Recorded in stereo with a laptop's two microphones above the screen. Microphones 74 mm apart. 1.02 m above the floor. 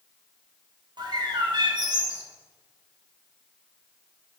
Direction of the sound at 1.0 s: 65° right (ahead or behind).